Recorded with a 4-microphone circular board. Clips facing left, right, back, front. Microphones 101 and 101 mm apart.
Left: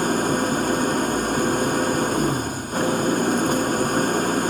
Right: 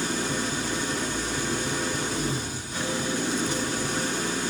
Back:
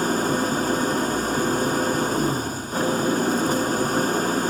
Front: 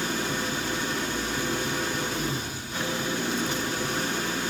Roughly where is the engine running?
Behind left.